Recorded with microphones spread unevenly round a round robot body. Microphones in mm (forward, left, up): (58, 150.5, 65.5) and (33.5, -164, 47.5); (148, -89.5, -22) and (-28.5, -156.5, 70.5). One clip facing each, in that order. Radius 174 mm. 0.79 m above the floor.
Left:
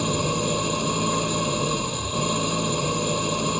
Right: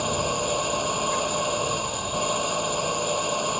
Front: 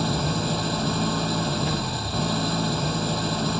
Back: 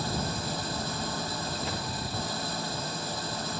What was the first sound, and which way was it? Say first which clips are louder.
An engine running: left 3 dB, front 7 dB; 20° left.